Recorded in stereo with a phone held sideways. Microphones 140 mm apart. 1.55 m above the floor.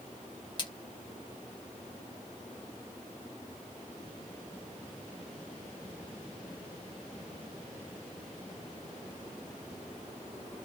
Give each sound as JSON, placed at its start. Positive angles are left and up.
{"t": 0.6, "sound": "a splash", "side_deg": 35, "distance_m": 1.0}